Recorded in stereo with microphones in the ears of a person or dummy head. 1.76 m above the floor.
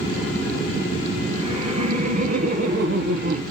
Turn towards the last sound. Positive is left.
turn(degrees=-65)  # may be behind; listen again after turning